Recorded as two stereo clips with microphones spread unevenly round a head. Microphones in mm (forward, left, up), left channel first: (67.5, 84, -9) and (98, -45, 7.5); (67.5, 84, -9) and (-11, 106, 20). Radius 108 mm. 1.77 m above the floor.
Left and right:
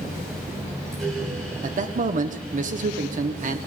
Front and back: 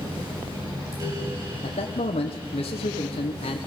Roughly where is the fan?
Behind.